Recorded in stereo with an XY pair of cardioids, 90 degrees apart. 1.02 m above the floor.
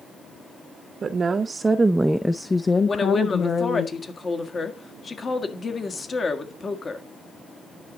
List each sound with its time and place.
1.0 s a woman speaking: 50° right, 0.9 m; by 3.9 s 70° left, 1.0 m
2.9 s a woman speaking: 40° left, 1.7 m